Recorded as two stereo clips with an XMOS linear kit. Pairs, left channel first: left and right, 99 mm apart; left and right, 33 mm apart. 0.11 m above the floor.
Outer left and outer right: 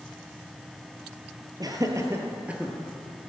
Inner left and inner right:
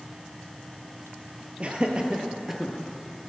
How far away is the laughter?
About 2 m.